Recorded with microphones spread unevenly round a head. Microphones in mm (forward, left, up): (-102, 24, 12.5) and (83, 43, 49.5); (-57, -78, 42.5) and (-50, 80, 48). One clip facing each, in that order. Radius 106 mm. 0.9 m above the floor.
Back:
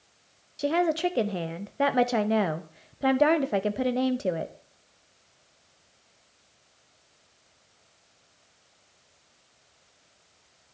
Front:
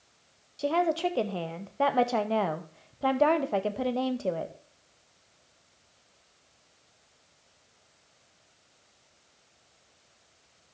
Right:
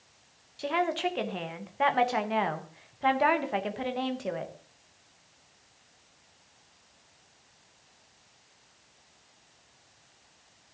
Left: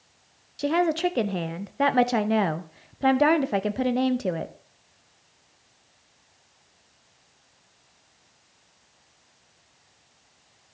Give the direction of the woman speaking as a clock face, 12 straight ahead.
8 o'clock.